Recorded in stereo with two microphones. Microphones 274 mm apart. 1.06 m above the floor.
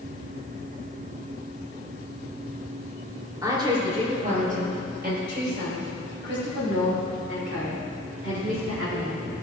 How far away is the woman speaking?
About 3 m.